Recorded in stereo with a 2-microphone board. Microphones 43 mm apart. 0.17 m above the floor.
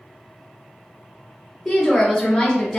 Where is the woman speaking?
Centre (ahead or behind), 1.3 m.